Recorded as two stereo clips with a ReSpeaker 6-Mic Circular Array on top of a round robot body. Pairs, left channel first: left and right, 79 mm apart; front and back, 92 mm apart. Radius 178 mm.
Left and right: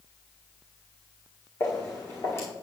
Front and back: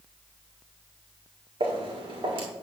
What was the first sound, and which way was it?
Footsteps, 150° left.